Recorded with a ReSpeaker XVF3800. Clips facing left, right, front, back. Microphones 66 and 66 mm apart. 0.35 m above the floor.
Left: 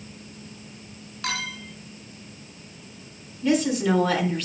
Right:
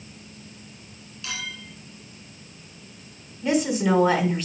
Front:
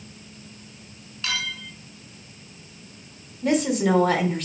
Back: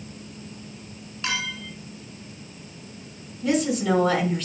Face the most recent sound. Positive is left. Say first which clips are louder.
# even, front 1 dB
turn(degrees=-15)